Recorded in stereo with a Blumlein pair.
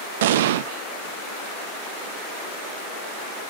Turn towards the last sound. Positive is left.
turn(degrees=-55)